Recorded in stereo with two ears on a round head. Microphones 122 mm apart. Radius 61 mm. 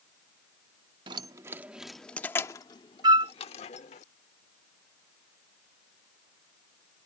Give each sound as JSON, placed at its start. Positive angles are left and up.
{"t": 1.1, "sound": "keys jangling", "side_deg": -35}
{"t": 3.0, "sound": "a flute", "side_deg": -30}